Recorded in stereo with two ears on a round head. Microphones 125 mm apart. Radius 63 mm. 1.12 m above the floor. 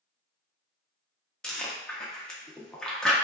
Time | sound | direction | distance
1.4 | chewing | 5° left (ahead or behind) | 0.6 m